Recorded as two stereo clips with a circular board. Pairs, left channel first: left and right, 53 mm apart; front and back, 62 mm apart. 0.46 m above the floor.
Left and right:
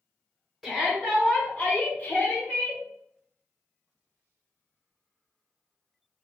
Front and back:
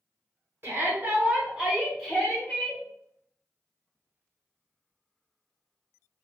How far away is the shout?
About 1.2 m.